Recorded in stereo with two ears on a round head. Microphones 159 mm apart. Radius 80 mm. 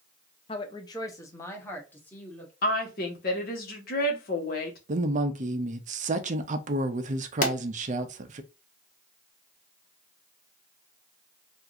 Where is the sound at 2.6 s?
55° left (ahead or behind), 1.2 m.